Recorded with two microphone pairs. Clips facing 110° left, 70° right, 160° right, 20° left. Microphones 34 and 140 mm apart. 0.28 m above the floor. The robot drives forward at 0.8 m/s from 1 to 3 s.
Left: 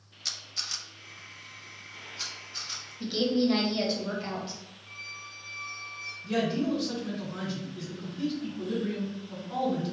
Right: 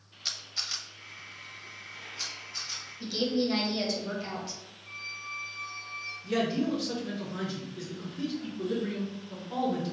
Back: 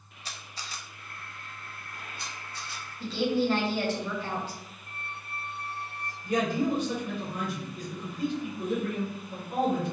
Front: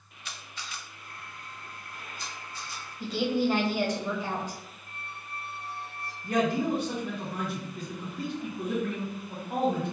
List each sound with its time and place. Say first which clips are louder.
0.2 s a camera shutter: right 1 dB, even; 145° right, 0.6 m; by 2.8 s 175° right, 1.8 m
3.0 s a woman speaking: left 3 dB, even; 70° left, 1.1 m
4.9 s a squeak: right 4 dB, back 2 dB; 155° right, 1.6 m
6.2 s a man speaking: left 1 dB, even; 20° left, 1.9 m